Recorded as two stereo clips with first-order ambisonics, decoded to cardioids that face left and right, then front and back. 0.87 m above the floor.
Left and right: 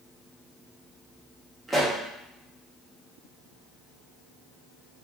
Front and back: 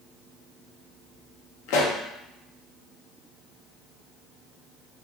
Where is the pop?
10° right, 0.5 m.